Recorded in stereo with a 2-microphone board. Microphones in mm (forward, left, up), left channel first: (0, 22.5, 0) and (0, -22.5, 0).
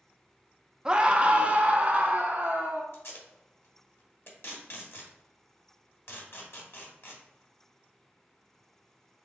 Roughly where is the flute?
No flute in this recording.